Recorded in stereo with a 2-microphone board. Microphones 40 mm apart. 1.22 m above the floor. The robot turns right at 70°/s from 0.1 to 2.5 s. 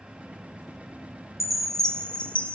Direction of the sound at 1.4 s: 10° right.